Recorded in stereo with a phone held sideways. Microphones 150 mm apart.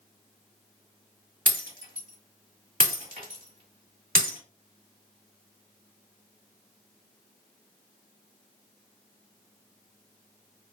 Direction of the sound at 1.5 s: 70° right (ahead or behind).